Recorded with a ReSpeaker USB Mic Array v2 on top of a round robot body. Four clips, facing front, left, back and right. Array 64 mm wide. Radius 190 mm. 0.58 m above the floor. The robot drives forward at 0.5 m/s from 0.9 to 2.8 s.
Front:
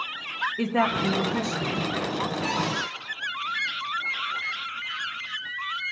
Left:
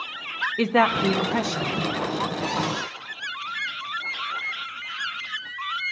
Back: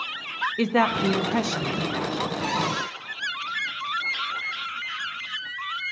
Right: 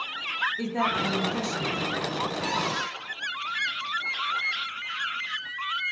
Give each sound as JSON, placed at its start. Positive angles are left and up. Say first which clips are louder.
{"t": 0.6, "sound": "a woman speaking", "louder": "left 11 dB, back 3 dB", "azimuth_deg": 110, "distance_m": 0.9}
{"t": 2.4, "sound": "a cupboard door", "louder": "left 2 dB, back 1 dB", "azimuth_deg": -175, "distance_m": 5.5}